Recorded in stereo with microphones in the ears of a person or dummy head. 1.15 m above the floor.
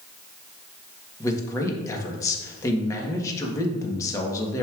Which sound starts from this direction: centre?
A man speaking, at 1.2 s.